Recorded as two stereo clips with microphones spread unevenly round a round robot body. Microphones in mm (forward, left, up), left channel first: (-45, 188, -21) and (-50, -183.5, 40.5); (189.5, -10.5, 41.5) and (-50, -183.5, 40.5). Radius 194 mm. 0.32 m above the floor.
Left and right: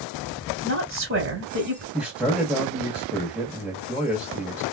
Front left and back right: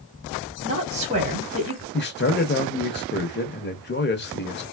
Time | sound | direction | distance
0.6 | a woman speaking | 130° right | 1.4 m
1.9 | a man speaking | 5° left | 1.0 m